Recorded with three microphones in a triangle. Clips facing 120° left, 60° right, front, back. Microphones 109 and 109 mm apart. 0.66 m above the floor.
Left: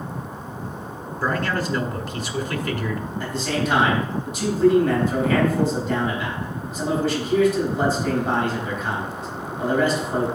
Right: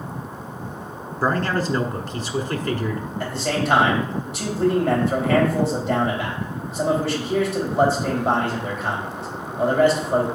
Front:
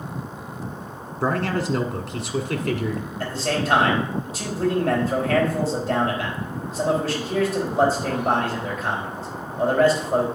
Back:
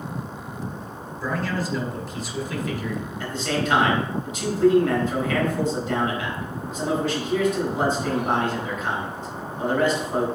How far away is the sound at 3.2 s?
About 4 m.